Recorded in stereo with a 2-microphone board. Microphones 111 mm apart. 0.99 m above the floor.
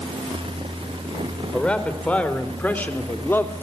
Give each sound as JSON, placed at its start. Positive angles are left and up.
{"t": 1.5, "sound": "a man speaking", "side_deg": 10, "distance_m": 4.0}